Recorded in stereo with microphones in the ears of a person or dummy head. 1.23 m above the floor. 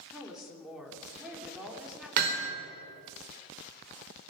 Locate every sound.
0.1 s a woman speaking: centre (ahead or behind), 4 m
2.2 s hammering: 50° right (ahead or behind), 3 m